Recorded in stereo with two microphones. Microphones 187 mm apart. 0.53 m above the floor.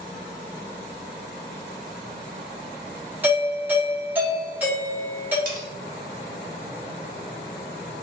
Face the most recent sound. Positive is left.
turn(degrees=-50)  # may be behind; listen again after turning